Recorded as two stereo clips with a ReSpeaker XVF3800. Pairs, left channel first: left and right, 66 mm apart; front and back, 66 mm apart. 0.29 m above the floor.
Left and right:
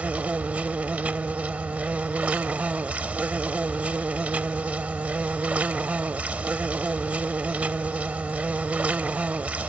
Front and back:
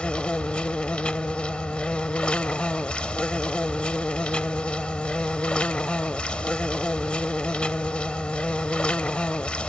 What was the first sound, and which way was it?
An insect, 55° right.